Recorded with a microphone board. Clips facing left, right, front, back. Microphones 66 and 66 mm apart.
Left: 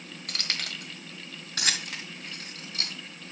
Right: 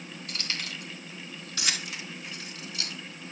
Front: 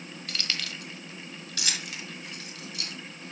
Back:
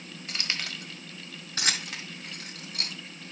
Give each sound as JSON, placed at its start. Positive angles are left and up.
{"t": 0.3, "sound": "keys jangling", "azimuth_deg": 110, "distance_m": 1.3}